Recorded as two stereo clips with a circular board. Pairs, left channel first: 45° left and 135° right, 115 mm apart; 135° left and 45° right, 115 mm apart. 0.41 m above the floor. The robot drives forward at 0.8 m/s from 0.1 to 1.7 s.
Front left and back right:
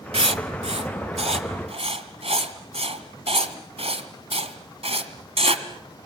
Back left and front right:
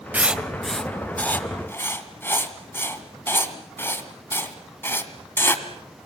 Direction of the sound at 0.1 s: 120° right.